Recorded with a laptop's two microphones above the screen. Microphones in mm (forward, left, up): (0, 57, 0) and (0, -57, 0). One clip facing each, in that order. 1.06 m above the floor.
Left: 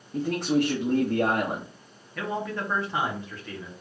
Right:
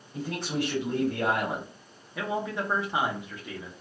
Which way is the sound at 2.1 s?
15° right (ahead or behind).